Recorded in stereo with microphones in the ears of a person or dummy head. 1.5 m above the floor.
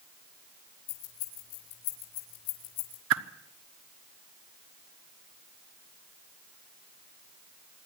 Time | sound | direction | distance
0.9 | keys jangling | 80° left | 6 m
3.1 | a whoosh | 70° right (ahead or behind) | 1.3 m